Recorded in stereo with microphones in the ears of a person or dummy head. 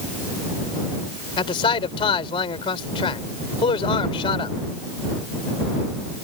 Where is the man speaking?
25° left (ahead or behind).